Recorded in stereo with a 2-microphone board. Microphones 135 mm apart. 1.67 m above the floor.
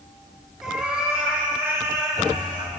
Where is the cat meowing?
5° right (ahead or behind), 3 m; by 2.7 s 35° right (ahead or behind), 2 m.